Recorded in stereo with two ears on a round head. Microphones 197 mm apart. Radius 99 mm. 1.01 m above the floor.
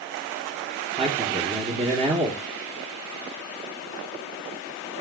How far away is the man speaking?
About 1.1 m.